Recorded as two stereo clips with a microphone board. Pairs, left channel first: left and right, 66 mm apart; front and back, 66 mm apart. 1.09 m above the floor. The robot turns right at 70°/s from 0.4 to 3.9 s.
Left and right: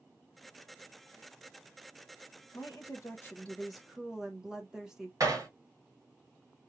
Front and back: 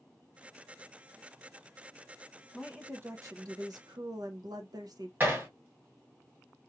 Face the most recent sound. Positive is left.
turn(degrees=-120)